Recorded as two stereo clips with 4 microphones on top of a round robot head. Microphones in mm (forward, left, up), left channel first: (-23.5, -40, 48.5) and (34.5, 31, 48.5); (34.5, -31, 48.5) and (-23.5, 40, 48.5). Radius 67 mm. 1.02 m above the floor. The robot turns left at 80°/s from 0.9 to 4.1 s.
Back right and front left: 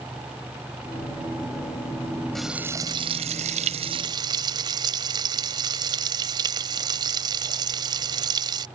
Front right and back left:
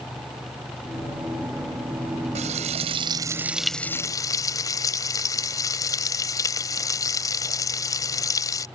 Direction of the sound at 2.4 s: 145° left.